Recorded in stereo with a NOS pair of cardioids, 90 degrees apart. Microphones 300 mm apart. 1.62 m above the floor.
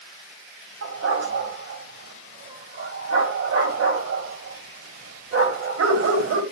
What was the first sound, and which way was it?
A dog barking, 55° right.